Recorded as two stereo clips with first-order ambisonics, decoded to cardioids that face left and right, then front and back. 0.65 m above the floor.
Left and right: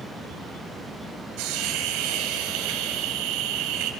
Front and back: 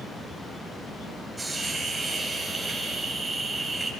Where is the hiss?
100° right, 3.5 m.